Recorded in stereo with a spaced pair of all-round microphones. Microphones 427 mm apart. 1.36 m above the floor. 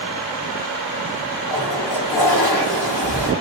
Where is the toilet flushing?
45° left (ahead or behind), 1.2 m.